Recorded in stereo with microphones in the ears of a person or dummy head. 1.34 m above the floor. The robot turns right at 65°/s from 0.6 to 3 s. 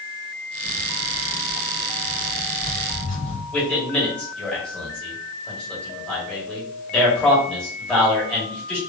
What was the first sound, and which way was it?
Footsteps, 15° left (ahead or behind).